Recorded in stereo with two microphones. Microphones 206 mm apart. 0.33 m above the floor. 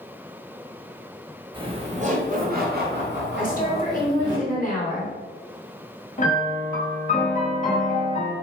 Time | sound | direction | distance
1.5 | laughter | 25° right (ahead or behind) | 1.2 m
3.4 | a woman speaking | 45° left (ahead or behind) | 1.7 m
6.2 | a piano | 40° left (ahead or behind) | 1.3 m